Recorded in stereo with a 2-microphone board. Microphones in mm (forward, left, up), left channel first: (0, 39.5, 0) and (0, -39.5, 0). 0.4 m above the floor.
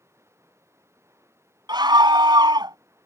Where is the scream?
65° right (ahead or behind).